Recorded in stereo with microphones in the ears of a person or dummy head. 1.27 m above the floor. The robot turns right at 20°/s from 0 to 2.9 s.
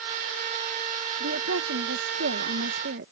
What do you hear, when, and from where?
1.2 s a woman speaking: 105° right; by 3.1 s 70° right